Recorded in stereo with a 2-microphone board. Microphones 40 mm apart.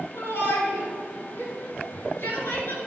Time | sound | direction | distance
0.1 | a shout | 60° left (ahead or behind) | 3.5 m